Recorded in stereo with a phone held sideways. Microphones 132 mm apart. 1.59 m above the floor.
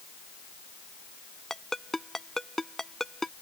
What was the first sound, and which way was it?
A ringtone, 5° left (ahead or behind).